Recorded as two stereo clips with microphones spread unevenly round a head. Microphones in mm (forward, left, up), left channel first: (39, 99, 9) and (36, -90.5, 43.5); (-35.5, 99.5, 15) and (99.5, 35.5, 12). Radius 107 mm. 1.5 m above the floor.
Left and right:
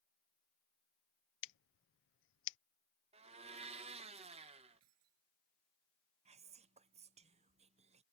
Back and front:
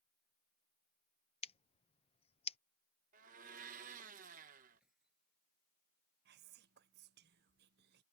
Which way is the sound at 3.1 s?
50° right.